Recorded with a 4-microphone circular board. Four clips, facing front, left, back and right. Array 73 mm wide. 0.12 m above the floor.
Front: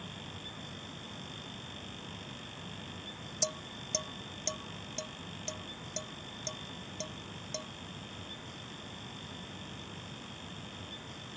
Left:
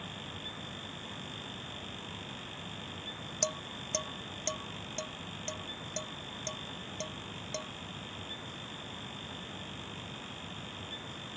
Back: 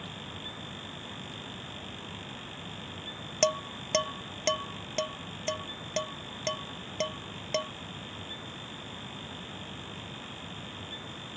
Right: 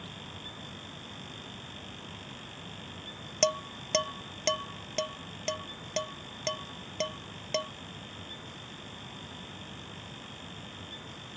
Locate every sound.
3.4 s dishes clattering: 145° right